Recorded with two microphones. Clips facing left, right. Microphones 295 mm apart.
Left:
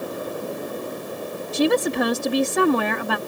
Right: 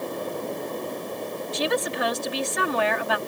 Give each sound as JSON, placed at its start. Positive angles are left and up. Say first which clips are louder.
{"t": 1.5, "sound": "a woman speaking", "louder": "left 8 dB", "side_deg": 50}